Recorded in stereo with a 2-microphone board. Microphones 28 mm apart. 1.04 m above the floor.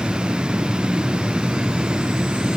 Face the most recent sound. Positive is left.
No sound to turn to.